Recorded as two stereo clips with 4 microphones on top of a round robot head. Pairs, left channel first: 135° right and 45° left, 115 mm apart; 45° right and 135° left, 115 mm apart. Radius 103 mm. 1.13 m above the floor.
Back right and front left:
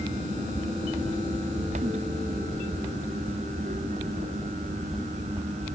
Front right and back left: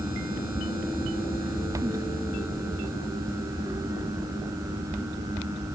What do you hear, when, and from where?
Only background noise.